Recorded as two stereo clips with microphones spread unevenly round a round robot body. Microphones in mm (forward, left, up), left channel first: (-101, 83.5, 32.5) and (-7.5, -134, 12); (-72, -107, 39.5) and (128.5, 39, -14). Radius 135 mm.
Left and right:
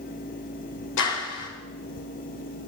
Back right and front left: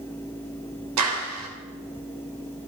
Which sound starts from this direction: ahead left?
A clap, at 1.0 s.